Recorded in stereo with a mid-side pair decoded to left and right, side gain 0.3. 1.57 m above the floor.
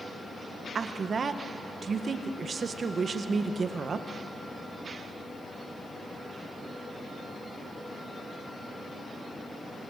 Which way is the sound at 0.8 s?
60° right.